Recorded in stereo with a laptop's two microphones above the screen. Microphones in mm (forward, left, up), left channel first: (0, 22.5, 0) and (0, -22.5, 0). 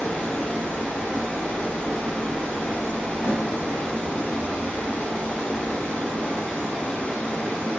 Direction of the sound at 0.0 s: 25° left (ahead or behind).